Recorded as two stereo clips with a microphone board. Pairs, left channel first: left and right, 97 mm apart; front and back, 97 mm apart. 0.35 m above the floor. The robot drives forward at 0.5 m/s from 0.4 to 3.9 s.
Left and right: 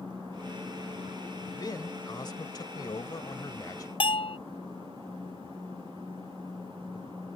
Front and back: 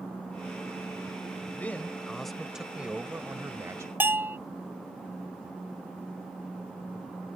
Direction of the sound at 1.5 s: 65° left.